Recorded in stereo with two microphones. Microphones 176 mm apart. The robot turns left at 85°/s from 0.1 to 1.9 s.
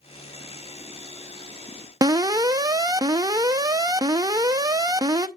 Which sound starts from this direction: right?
An alarm, at 2.0 s.